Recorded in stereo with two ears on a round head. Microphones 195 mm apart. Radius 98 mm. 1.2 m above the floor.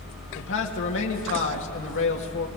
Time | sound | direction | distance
0.3 | a man speaking | 60° left (ahead or behind) | 2 m